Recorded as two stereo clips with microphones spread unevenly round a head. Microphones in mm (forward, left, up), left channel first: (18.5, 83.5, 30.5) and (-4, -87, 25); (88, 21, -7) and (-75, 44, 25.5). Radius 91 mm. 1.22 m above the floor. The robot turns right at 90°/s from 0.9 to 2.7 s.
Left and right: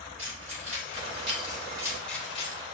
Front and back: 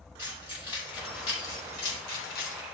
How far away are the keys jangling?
About 3.5 m.